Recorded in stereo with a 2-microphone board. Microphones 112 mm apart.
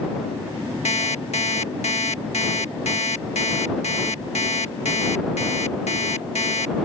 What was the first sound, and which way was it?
An alarm clock, 80° left.